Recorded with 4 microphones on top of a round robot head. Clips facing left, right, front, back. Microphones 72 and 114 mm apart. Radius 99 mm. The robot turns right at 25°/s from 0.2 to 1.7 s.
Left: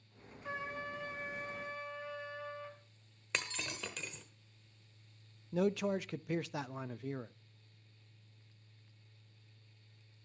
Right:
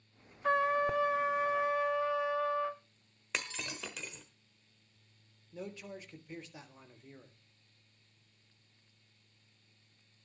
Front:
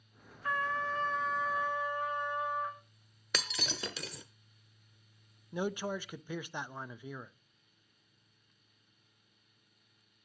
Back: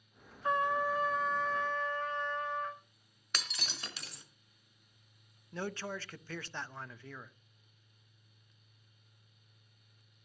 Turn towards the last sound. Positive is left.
turn(degrees=75)